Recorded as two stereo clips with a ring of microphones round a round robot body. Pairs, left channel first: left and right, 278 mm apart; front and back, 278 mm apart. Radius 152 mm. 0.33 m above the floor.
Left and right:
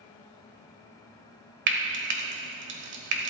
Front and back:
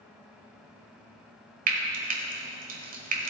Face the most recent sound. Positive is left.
turn(degrees=-125)